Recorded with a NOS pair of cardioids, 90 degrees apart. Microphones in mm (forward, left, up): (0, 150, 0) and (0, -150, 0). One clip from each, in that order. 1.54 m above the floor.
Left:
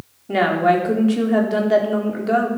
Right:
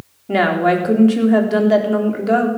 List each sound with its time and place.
0.3 s a woman speaking: 25° right, 4 m